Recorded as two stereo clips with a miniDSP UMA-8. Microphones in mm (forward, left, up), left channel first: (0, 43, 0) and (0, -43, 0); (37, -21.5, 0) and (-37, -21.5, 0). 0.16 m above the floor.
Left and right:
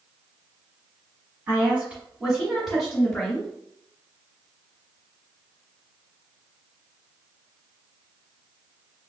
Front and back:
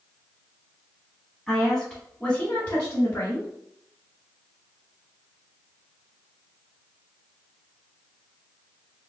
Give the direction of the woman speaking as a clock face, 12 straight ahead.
3 o'clock.